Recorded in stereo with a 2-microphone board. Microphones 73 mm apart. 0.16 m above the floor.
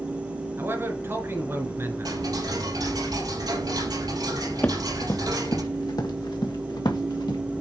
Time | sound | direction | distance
0.6 | a man speaking | 35° right (ahead or behind) | 2 m
2.0 | ticking | 65° right (ahead or behind) | 4 m
4.6 | running footsteps | 25° left (ahead or behind) | 1.1 m